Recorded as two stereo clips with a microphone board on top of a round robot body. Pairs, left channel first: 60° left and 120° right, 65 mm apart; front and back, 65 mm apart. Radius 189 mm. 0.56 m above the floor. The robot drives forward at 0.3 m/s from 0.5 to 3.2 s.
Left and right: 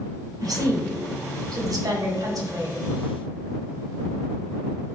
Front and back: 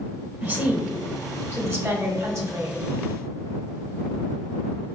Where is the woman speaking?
120° right, 1.2 m; by 2.8 s 140° right, 1.7 m.